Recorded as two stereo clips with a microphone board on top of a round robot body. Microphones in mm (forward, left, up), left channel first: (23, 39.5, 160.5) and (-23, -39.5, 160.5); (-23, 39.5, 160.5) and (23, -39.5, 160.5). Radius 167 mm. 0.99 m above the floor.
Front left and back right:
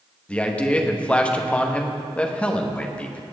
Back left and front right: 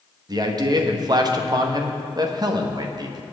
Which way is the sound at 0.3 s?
15° right.